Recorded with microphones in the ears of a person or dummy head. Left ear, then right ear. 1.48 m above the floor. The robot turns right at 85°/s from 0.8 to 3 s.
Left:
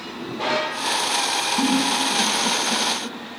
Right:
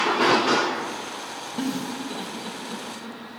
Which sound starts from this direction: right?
A giggle, at 1.6 s.